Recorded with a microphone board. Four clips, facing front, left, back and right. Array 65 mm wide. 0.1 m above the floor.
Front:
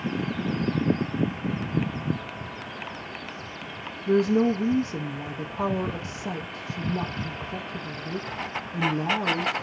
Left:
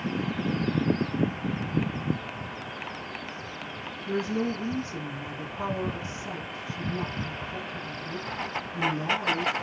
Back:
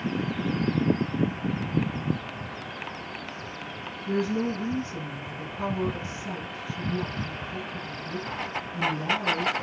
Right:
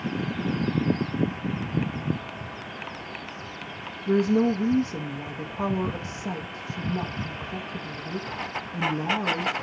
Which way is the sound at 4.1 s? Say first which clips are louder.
Right 7 dB, front 6 dB; 30° right.